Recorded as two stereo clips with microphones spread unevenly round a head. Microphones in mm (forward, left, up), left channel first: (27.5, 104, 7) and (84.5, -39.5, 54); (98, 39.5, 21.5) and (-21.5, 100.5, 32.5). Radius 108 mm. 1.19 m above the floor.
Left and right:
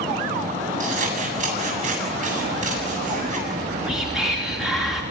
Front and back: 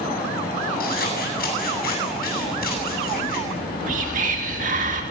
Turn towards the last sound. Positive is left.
turn(degrees=-160)